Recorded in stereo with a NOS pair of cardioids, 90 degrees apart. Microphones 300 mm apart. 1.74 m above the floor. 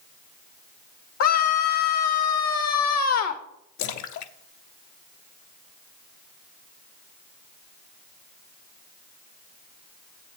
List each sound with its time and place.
1.2 s a scream: 60° left, 1.1 m
3.8 s a splash: 70° left, 0.9 m